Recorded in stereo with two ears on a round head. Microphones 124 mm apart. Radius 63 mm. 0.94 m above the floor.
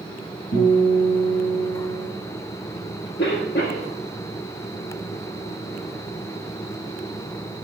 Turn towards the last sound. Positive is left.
turn(degrees=75)  # may be behind; listen again after turning